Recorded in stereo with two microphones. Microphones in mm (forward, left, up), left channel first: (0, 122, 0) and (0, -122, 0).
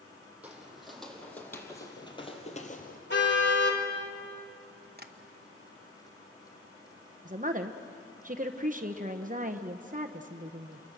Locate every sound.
0.4 s footsteps: 5° right (ahead or behind), 3.5 m; by 3.0 s 35° left (ahead or behind), 2.5 m
3.1 s a car horn: 45° left (ahead or behind), 3 m
5.0 s tapping: 40° right (ahead or behind), 1.2 m
7.2 s a woman speaking: 35° right (ahead or behind), 0.9 m